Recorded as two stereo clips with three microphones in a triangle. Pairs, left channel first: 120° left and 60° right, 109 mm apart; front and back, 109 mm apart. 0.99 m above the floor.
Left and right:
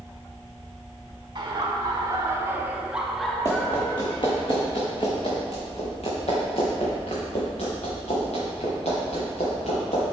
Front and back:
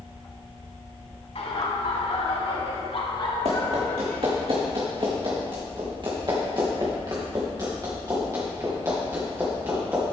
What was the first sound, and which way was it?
Laughter, 15° right.